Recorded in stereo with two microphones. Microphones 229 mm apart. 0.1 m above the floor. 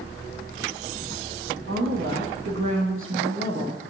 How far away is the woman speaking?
About 3 m.